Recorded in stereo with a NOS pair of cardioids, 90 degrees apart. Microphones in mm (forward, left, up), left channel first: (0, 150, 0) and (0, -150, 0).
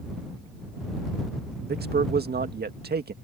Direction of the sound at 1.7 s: 30° right.